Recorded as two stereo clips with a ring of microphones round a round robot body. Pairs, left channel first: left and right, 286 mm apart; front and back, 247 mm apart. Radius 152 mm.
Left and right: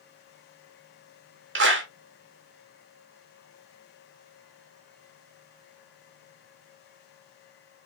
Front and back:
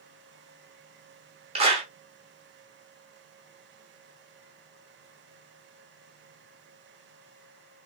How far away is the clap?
About 1.3 m.